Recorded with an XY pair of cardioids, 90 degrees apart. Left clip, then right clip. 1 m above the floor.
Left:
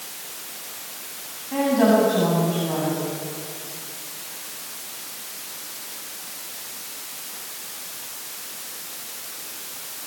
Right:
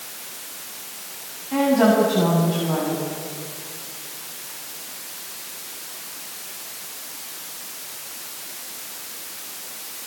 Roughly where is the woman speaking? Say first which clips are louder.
Right 1 dB; ahead.